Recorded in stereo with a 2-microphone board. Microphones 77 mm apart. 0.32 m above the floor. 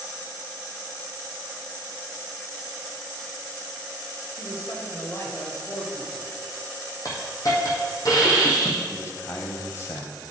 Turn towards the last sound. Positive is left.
turn(degrees=40)  # may be behind; listen again after turning